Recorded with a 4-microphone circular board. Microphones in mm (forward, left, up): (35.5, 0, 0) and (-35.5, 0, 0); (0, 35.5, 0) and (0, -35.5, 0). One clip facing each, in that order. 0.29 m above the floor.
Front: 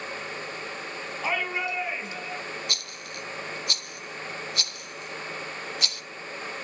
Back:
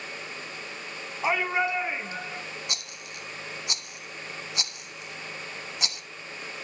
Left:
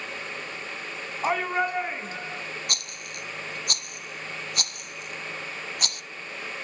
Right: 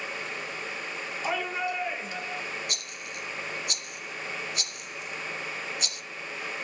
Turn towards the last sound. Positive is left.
turn(degrees=110)